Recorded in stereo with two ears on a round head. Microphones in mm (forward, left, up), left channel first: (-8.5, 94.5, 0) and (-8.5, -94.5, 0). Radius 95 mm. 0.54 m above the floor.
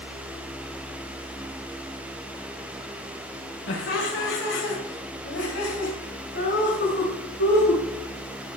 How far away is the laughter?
About 1.8 m.